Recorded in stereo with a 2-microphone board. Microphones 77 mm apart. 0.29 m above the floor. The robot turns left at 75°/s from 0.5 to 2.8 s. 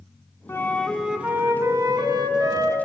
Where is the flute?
35° left, 1.0 m; by 2.8 s 135° right, 1.0 m.